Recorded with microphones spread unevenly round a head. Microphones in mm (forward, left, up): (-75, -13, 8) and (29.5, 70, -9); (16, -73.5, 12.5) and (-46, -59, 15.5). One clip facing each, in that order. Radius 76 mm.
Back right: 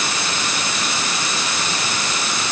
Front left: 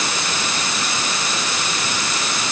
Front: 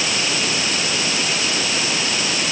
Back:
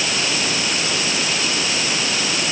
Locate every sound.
Only background noise.